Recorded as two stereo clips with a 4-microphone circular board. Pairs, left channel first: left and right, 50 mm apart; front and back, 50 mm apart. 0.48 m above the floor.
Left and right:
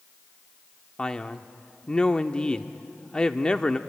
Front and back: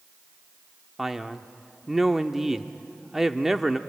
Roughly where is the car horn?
I don't hear a car horn.